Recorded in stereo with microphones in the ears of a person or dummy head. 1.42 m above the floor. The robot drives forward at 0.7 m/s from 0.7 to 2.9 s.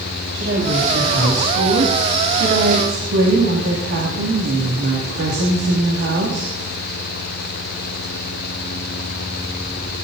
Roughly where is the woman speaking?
Right.